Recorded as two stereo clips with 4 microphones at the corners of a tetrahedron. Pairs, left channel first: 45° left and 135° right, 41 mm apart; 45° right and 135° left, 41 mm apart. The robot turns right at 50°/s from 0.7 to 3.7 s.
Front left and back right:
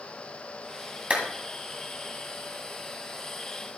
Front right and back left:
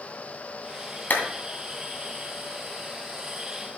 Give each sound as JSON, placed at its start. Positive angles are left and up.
{"t": 1.1, "sound": "a clap", "azimuth_deg": -80, "distance_m": 2.0}